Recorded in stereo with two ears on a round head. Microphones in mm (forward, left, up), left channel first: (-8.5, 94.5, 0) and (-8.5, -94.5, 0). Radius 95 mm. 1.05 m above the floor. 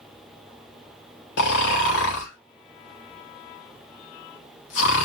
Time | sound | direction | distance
1.4 | snoring | 55° left (ahead or behind) | 2 m